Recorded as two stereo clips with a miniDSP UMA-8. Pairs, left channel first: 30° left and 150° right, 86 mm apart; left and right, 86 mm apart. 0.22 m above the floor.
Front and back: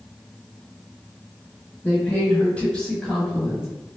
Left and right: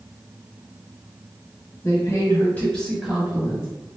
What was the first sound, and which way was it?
A woman speaking, 85° left.